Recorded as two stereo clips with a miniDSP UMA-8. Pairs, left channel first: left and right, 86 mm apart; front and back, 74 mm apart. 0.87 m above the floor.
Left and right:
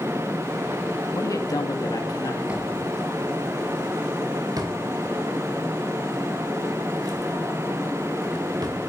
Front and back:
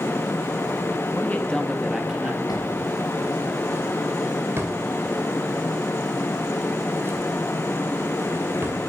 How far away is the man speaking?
About 1.4 m.